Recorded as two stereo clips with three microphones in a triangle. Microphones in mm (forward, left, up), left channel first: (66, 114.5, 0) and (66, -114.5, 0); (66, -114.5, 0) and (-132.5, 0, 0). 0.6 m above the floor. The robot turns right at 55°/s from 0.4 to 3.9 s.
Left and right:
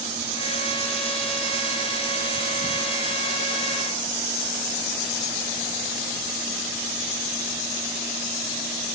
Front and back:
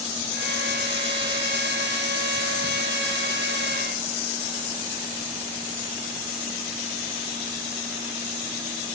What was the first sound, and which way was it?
Only background noise.